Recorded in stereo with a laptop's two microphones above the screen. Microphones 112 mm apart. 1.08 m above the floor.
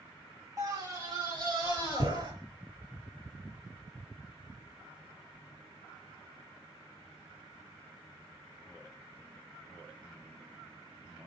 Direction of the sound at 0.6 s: 30° right (ahead or behind).